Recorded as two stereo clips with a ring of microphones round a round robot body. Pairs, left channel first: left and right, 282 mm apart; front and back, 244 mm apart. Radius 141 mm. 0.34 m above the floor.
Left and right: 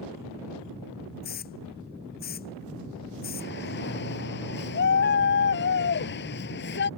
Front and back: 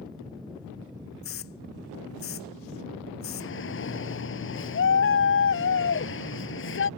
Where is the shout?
35° left.